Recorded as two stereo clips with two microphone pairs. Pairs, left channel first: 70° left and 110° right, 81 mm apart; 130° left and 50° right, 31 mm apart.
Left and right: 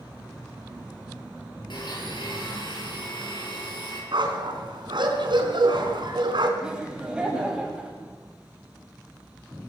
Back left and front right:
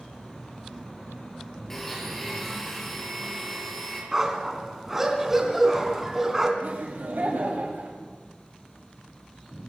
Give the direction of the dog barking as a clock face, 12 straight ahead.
4 o'clock.